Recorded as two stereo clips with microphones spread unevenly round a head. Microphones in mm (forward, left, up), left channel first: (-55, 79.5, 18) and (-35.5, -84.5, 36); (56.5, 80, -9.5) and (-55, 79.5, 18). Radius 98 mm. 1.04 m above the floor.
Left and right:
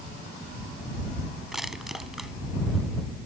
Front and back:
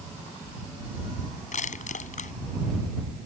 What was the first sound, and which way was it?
Crushing, 5° left.